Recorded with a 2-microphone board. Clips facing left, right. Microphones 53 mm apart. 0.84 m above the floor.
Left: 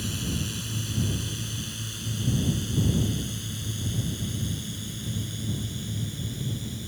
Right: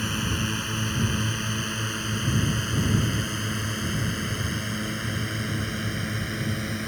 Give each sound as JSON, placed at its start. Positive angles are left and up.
{"t": 0.0, "sound": "a drone", "side_deg": -45}